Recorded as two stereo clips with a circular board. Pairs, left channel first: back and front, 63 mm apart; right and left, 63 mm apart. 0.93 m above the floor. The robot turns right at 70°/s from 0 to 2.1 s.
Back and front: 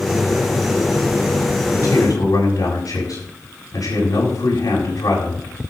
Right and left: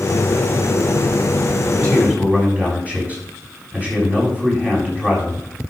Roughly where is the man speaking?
Behind left.